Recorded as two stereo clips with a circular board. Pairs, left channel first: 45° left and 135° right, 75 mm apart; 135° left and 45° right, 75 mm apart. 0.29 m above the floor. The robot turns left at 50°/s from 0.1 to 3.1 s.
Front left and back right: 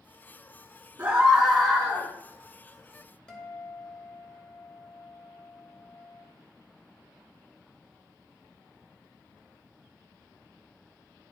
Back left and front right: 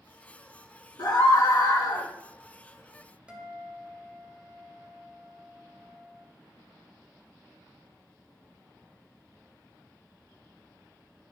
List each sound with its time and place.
1.0 s a scream: 160° left, 2.5 m; by 2.1 s 105° left, 2.5 m
3.3 s a guitar: 10° right, 1.5 m